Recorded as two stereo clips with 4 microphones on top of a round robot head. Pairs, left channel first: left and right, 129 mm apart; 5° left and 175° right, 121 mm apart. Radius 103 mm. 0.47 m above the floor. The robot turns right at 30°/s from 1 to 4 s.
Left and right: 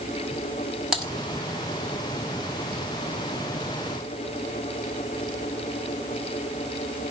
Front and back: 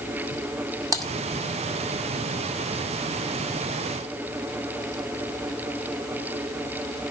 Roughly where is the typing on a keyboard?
Behind.